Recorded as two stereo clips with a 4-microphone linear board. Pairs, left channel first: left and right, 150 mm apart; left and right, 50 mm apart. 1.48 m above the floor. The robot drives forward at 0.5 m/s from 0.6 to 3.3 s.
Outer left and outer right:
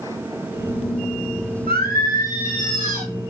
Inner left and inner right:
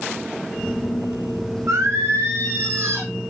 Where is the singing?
80° right, 1.0 m; by 3.1 s 55° right (ahead or behind), 1.2 m.